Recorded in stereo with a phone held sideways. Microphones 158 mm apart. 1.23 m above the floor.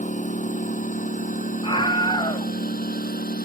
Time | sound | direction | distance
0.0 | a lawn mower | 50° left (ahead or behind) | ?
1.6 | a scream | 35° left (ahead or behind) | ?